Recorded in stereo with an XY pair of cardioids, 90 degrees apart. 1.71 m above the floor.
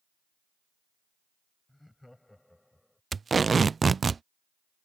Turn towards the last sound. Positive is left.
turn(degrees=-40)